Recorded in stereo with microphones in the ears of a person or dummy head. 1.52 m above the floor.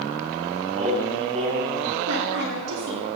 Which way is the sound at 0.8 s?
35° right (ahead or behind).